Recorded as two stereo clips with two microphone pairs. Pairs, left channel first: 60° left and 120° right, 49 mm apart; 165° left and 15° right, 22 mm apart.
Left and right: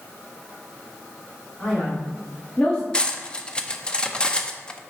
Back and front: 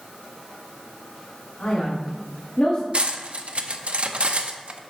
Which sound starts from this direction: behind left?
A man speaking, at 1.6 s.